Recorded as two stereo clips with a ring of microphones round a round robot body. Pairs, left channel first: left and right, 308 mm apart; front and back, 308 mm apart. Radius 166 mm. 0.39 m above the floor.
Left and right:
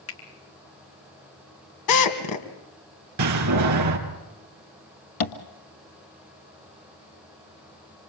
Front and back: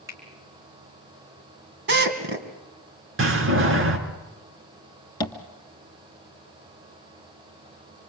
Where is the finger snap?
100° left, 3.5 m.